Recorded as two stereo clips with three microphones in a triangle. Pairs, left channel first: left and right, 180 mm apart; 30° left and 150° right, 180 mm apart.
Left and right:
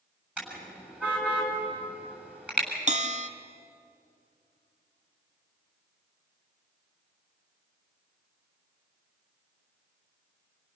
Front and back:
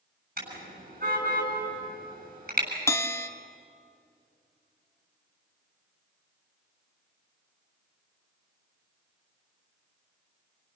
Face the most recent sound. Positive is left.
turn(degrees=-45)